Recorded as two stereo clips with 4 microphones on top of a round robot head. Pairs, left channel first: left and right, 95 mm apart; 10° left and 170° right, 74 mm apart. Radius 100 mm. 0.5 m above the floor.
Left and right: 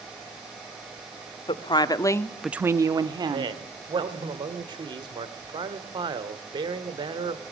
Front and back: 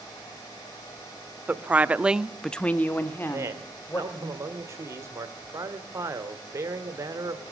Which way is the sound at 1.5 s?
120° left.